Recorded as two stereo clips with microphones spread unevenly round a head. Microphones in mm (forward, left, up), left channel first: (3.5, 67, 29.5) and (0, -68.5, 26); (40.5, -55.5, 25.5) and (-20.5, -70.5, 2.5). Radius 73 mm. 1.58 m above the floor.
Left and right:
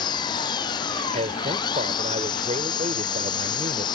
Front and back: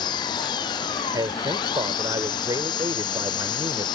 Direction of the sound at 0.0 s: 30° left.